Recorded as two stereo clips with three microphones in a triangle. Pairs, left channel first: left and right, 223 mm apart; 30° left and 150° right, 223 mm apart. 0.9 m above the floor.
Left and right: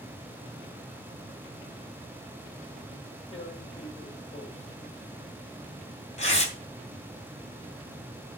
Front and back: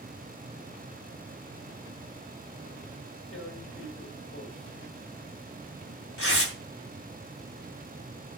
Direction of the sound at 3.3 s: 30° left.